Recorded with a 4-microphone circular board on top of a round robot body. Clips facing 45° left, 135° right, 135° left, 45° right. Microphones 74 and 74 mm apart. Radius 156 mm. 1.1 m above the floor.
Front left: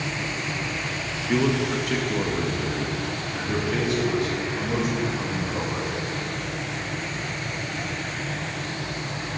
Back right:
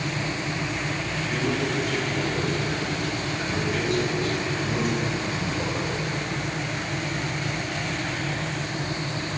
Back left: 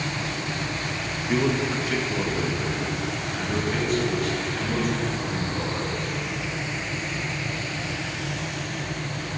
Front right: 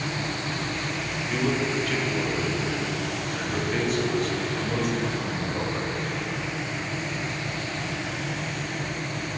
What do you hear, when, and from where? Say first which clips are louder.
1.3 s a man speaking: front left 5 dB, back left 2 dB; 85° left, 1.4 m; by 5.9 s 35° left, 6 m